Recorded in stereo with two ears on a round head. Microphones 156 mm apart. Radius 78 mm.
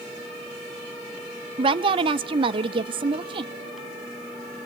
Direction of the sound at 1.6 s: 30° right (ahead or behind).